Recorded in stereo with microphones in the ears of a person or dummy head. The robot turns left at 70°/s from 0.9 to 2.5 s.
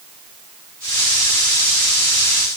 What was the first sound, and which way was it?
Only background noise.